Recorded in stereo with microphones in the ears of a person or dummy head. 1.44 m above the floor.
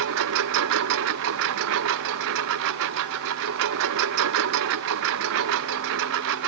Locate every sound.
0.0 s a lawn mower: 55° right (ahead or behind)